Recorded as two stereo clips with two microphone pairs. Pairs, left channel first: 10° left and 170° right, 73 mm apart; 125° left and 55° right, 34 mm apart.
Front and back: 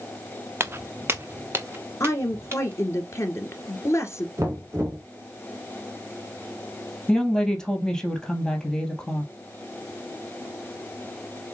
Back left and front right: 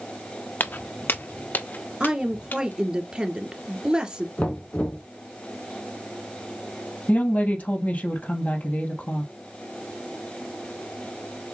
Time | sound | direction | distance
0.6 | footsteps | 140° left | 0.6 m
2.0 | a woman speaking | straight ahead | 1.8 m
4.4 | knocking | 160° left | 2.5 m
7.1 | a woman speaking | 95° left | 2.5 m